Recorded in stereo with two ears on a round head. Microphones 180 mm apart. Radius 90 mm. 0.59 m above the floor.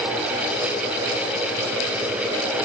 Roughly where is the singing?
No singing in this recording.